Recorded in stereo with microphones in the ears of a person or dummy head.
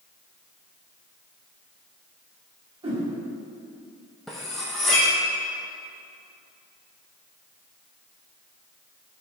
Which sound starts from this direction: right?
A whoosh, at 2.8 s.